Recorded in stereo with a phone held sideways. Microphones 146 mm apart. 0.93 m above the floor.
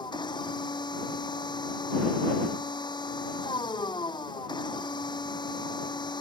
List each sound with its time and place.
0.0 s a machine running: 30° left (ahead or behind)